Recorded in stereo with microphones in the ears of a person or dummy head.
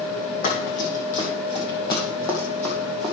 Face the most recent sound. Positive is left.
turn(degrees=0)  # may be behind; listen again after turning